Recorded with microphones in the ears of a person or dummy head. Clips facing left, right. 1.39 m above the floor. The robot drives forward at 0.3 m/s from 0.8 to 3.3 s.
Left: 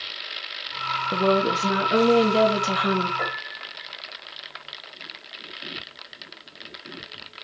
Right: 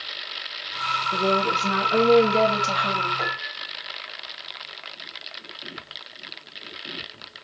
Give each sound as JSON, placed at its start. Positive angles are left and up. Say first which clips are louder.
{"t": 1.1, "sound": "a woman speaking", "louder": "left 3 dB", "side_deg": 60, "distance_m": 1.2}
{"t": 3.2, "sound": "a piano", "louder": "even", "side_deg": 10, "distance_m": 1.2}